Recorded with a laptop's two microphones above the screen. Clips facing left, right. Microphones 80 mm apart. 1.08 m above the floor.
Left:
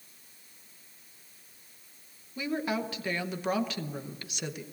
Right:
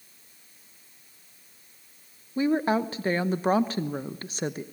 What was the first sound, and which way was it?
A woman speaking, 35° right (ahead or behind).